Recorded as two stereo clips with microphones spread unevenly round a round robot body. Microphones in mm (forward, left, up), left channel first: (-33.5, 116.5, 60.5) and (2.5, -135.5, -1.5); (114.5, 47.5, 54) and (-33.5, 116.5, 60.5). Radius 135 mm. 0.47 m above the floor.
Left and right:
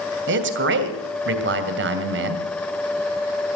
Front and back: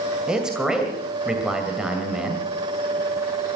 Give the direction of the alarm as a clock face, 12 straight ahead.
No alarm in this recording.